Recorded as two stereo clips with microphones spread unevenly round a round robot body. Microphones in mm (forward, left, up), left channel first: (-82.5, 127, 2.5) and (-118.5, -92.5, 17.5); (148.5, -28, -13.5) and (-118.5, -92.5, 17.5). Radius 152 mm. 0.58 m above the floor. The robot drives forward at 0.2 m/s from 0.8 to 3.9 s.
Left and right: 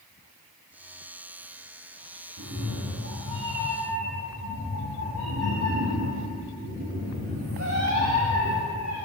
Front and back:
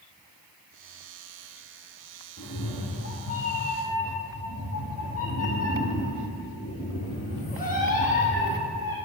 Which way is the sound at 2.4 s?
45° right.